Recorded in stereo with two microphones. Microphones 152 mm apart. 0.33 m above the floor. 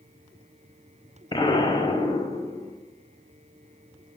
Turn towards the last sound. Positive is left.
turn(degrees=35)  # may be behind; listen again after turning